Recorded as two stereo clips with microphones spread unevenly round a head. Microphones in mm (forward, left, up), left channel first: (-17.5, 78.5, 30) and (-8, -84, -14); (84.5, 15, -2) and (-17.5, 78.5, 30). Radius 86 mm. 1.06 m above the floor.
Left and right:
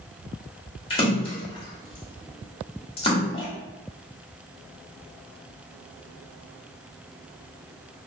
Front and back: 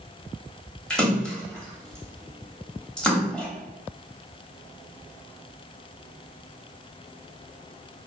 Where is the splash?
60° left, 0.8 m.